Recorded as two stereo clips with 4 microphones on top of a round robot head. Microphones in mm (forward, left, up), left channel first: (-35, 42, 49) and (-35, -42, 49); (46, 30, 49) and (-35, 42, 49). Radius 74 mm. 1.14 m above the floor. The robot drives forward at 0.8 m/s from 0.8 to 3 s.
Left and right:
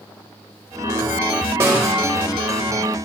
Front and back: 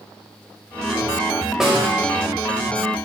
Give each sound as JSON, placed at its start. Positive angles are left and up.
{"t": 1.6, "sound": "a snare drum", "azimuth_deg": -105, "distance_m": 0.9}